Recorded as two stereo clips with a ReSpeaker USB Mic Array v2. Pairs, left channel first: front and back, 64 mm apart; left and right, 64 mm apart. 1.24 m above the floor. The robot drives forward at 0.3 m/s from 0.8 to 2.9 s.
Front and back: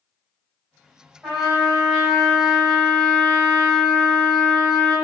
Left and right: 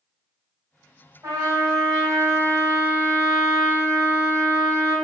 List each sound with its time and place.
1.2 s a trumpet: 100° right, 1.9 m; by 5.0 s 115° right, 2 m